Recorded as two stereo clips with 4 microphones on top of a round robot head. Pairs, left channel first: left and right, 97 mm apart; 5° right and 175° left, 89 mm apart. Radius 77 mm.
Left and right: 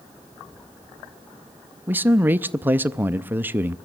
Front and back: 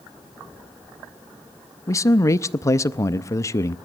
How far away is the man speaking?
About 0.5 m.